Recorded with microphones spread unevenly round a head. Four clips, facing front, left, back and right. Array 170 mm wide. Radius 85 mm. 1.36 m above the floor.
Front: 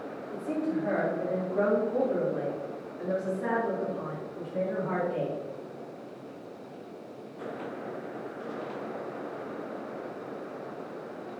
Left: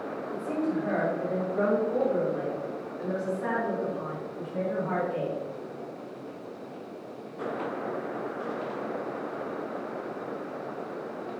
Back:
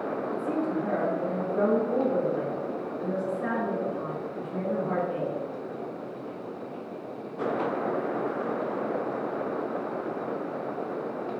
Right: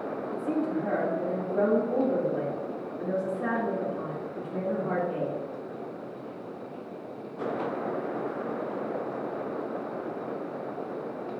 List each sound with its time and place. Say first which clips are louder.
0.3 s a woman speaking: even, even; 115° right, 3.5 m